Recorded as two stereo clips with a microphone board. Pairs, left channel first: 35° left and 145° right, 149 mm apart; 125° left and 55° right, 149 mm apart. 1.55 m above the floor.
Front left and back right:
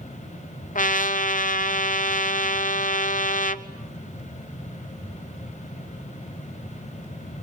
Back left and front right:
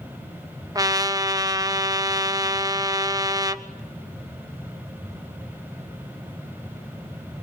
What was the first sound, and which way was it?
A trumpet, 10° left.